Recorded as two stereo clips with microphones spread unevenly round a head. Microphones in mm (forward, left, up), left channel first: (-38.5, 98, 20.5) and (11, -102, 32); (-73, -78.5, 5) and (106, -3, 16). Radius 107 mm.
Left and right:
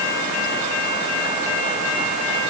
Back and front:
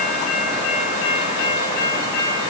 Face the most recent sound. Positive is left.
No sound to turn to.